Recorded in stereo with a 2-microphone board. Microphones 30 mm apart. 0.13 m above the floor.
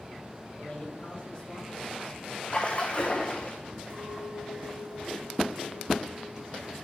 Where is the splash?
40° left (ahead or behind), 1.6 m.